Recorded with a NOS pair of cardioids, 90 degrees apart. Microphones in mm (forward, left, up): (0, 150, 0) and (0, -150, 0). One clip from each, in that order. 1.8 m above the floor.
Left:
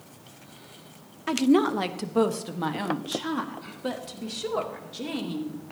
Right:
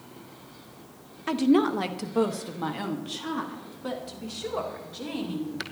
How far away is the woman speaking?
About 0.9 m.